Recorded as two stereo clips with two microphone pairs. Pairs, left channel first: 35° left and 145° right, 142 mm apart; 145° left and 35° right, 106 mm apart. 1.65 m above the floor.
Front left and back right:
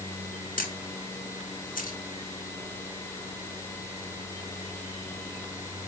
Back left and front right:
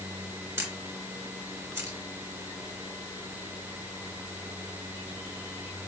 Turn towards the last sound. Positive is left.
turn(degrees=30)